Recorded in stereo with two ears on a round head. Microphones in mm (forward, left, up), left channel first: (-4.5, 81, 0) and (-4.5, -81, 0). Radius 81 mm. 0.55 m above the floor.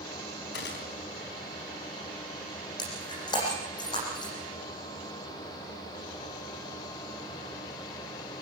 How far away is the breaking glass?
About 10 m.